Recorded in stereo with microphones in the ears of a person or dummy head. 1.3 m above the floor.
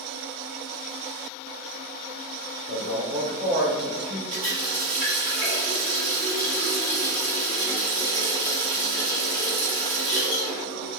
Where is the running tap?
25° right (ahead or behind), 1.1 m.